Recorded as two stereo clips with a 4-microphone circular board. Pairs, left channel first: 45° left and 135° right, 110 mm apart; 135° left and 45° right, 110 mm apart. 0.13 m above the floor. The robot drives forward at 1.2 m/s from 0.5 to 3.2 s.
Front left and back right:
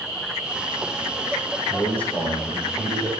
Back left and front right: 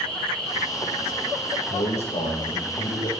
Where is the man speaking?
120° left, 5.5 m; by 3.1 s 130° left, 6.5 m.